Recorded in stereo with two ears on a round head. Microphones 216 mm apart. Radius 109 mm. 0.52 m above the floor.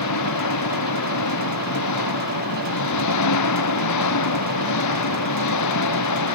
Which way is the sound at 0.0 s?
85° left.